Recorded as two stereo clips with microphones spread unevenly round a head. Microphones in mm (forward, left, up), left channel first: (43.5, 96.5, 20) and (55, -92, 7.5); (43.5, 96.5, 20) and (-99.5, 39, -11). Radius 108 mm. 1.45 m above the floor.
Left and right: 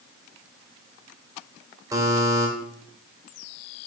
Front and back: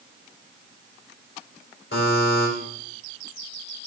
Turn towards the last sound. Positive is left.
turn(degrees=-10)